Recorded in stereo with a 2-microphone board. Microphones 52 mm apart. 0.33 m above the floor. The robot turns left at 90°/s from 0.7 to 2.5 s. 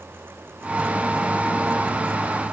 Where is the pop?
I don't hear a pop.